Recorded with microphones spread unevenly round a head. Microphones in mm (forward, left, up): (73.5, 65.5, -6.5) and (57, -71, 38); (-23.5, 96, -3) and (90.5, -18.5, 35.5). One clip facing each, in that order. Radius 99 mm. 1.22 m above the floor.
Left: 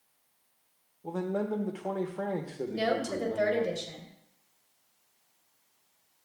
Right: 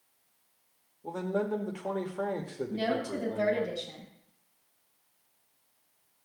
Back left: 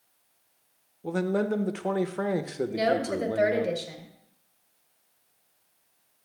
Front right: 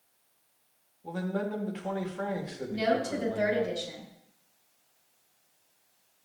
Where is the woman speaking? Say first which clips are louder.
Left 2 dB, back left 1 dB; 110° left, 3 m.